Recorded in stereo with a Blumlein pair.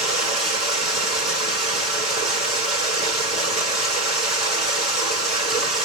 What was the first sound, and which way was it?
Running water, 5° left.